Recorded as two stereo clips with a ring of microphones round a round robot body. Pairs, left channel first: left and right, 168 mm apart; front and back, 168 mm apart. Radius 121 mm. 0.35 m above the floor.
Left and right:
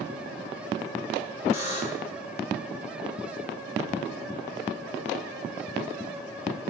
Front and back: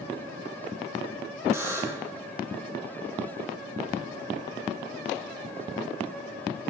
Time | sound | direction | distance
1.5 | a buzzer | 115° left | 1.8 m